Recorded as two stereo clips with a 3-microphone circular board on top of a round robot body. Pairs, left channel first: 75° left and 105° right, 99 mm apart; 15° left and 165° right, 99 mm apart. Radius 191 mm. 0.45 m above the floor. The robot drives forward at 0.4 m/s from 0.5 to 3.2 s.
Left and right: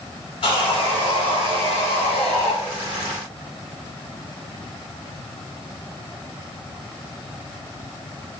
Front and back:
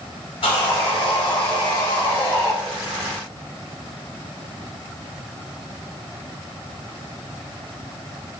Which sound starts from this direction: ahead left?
Sawing, at 0.4 s.